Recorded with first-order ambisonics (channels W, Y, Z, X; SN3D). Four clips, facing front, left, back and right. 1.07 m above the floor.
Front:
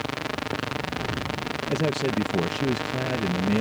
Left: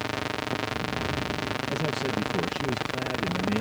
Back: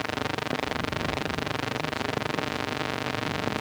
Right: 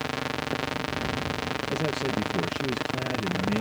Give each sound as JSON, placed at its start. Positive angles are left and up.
{"t": 1.7, "sound": "a man speaking", "azimuth_deg": -5}